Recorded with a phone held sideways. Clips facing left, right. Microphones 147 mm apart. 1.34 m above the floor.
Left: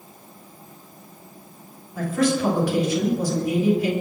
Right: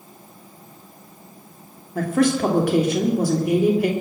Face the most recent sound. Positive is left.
turn(degrees=-70)  # may be behind; listen again after turning